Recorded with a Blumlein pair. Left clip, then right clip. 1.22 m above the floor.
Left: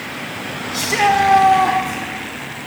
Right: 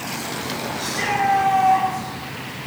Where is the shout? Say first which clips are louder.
Left 9 dB; 45° left, 4.5 m.